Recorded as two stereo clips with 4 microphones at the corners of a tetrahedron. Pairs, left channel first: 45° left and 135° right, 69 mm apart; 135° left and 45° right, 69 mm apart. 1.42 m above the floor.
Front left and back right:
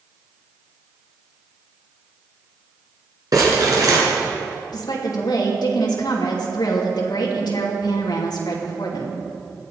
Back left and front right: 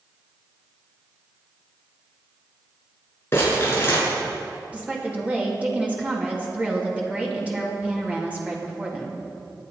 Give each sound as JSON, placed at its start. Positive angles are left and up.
{"t": 3.3, "sound": "crumpling", "azimuth_deg": -170, "distance_m": 6.0}
{"t": 4.7, "sound": "a woman speaking", "azimuth_deg": 25, "distance_m": 3.0}